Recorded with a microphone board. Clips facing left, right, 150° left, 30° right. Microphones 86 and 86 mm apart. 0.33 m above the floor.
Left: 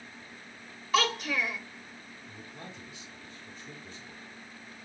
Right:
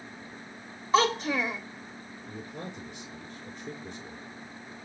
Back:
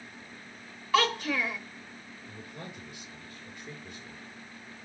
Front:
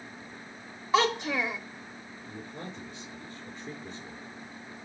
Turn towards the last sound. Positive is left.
turn(degrees=-85)